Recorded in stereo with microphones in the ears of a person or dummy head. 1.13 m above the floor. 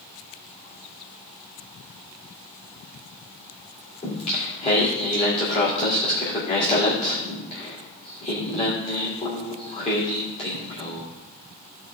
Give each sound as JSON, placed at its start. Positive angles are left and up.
{"t": 4.0, "sound": "singing", "side_deg": 30, "distance_m": 2.5}